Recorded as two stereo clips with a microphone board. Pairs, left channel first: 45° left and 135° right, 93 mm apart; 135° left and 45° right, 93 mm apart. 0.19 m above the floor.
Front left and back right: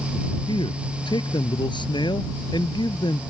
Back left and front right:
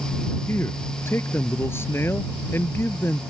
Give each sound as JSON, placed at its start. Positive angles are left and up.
{"t": 0.5, "sound": "a man speaking", "azimuth_deg": 70}